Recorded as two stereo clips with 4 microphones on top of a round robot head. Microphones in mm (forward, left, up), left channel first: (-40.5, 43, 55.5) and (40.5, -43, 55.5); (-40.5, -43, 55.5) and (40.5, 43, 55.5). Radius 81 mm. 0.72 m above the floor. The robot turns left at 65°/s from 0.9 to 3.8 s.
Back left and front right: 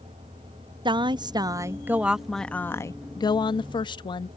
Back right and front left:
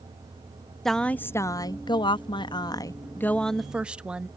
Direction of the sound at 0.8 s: 50° right.